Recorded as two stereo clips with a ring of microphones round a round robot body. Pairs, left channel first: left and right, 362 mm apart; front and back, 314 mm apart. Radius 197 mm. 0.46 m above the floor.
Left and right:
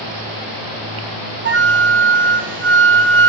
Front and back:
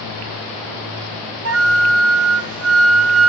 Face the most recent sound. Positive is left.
turn(degrees=-145)